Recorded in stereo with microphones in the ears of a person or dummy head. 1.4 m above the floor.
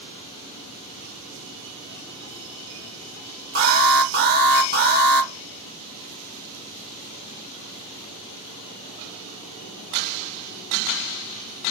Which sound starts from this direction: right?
An alarm, at 3.5 s.